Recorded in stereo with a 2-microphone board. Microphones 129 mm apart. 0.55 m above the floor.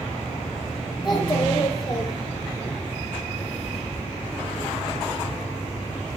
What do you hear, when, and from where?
1.0 s a child speaking: 35° left (ahead or behind), 7.5 m